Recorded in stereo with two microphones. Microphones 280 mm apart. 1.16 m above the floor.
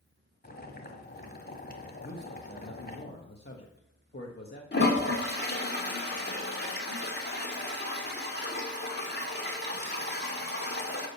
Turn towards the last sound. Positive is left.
turn(degrees=35)  # may be behind; listen again after turning